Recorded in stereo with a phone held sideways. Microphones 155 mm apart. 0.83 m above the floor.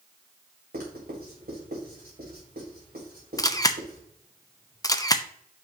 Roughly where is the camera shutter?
Left.